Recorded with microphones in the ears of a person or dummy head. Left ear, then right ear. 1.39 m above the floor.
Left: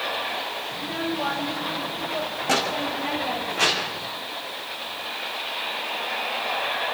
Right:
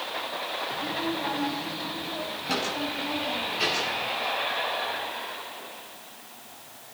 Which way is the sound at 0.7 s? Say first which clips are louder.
Left 1 dB; 55° left (ahead or behind).